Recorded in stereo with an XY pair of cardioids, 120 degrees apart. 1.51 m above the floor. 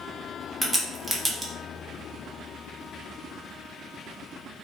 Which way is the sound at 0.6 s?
15° right.